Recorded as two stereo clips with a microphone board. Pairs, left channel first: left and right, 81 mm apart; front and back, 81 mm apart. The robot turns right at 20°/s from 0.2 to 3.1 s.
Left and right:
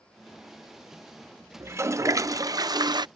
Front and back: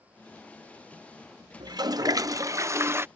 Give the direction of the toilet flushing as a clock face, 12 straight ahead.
5 o'clock.